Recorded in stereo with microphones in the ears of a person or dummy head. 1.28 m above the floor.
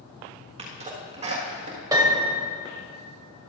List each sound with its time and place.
0.6 s a sneeze: 35° right (ahead or behind), 1.6 m
1.9 s a piano: 15° right (ahead or behind), 1.5 m